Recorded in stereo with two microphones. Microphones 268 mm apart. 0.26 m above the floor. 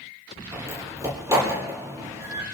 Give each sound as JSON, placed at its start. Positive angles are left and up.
{"t": 0.5, "sound": "a door slam", "side_deg": -10, "distance_m": 6.0}